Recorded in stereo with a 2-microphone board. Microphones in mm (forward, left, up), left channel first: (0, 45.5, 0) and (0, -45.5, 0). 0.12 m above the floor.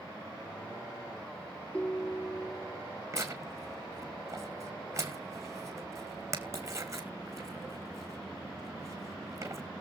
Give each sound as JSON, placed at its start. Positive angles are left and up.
{"t": 1.7, "sound": "a ringtone", "side_deg": 15, "distance_m": 0.9}
{"t": 3.1, "sound": "tearing paper", "side_deg": -35, "distance_m": 2.0}